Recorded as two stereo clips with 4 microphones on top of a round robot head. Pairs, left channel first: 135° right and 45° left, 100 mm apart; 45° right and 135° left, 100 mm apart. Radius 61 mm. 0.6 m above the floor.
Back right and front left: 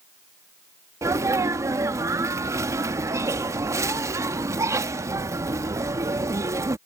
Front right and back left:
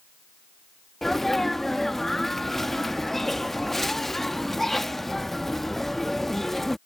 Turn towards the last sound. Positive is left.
turn(degrees=40)